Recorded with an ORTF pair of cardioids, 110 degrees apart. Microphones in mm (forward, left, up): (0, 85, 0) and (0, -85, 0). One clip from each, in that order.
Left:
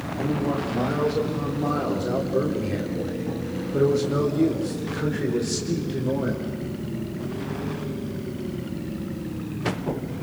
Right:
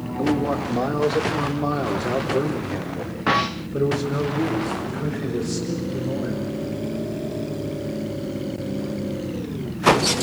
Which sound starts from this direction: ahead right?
A man speaking, at 0.2 s.